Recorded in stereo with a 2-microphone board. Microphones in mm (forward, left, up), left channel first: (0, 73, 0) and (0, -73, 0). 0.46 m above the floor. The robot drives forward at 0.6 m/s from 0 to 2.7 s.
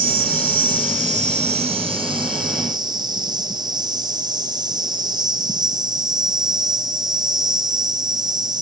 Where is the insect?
75° right (ahead or behind), 0.9 m; by 8.6 s 30° right (ahead or behind), 1.7 m.